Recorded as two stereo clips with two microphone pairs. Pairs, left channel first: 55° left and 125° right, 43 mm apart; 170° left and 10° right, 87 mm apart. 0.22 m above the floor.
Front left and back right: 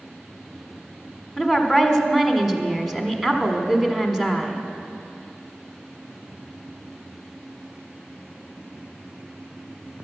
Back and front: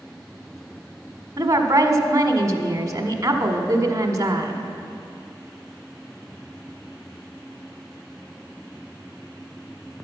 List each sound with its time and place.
1.4 s a woman speaking: 45° right, 1.4 m